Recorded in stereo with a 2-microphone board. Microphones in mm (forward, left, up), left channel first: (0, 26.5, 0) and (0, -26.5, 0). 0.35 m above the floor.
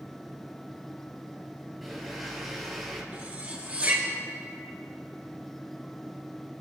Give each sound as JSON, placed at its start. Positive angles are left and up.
{"t": 1.8, "sound": "a blender", "side_deg": 5, "distance_m": 2.5}
{"t": 3.1, "sound": "cutlery clinking", "side_deg": -30, "distance_m": 3.0}